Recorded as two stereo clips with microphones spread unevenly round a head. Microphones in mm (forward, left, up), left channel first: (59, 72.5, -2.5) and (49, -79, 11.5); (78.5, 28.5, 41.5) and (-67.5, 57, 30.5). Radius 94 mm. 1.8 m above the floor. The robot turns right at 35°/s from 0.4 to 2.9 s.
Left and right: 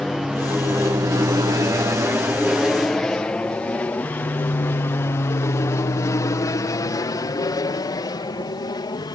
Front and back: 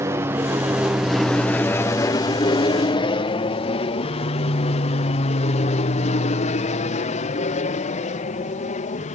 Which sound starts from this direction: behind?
An aircraft, at 0.0 s.